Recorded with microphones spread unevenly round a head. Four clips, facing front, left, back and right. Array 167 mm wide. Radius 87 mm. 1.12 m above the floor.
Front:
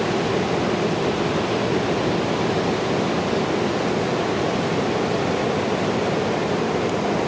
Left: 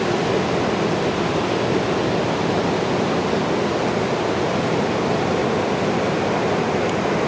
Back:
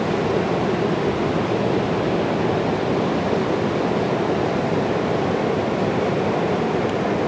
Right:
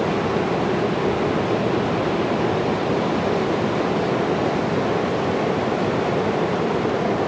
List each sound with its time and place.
Only background noise.